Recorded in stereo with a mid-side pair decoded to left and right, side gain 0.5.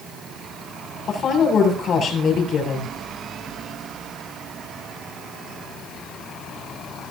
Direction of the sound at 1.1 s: 50° left.